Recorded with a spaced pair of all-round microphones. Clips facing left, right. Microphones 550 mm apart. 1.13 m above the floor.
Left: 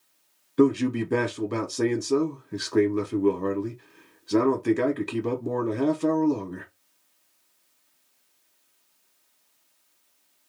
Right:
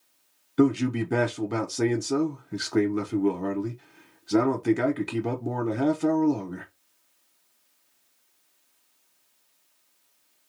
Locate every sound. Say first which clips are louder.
0.6 s a man speaking: left 1 dB; 10° right (ahead or behind), 0.6 m